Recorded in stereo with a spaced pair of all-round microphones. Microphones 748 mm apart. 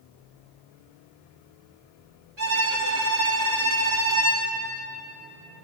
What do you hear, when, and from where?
2.4 s a violin: 35° right (ahead or behind), 6 m